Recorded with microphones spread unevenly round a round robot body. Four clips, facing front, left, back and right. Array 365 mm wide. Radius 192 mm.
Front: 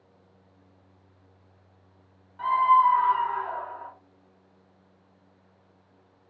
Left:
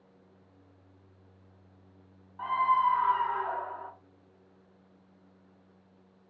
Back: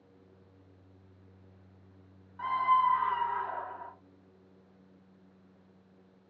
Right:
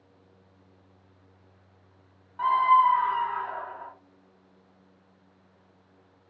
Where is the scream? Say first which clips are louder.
Right 6 dB, front 7 dB; 100° right, 0.8 m; by 3.9 s 55° left, 1.4 m.